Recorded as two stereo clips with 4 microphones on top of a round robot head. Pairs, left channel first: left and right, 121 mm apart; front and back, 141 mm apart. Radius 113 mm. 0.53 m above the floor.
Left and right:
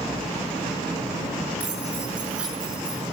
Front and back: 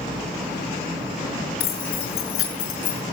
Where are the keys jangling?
10° right, 6.5 m; by 3.0 s 5° right, 5.5 m.